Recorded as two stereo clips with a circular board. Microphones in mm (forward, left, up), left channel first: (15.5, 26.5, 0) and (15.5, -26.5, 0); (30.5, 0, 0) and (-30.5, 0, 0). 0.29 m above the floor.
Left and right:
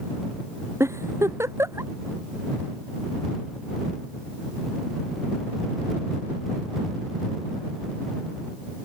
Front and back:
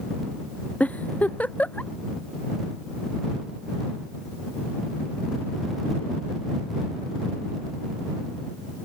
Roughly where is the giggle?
Ahead right.